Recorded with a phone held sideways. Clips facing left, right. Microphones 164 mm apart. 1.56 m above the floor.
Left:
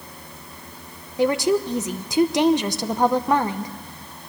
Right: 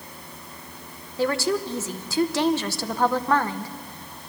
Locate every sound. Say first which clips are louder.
1.2 s a woman speaking: left 4 dB; 15° left (ahead or behind), 0.9 m